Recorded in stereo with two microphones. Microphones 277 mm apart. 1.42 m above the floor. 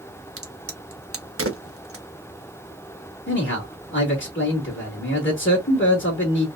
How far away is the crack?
About 1.2 m.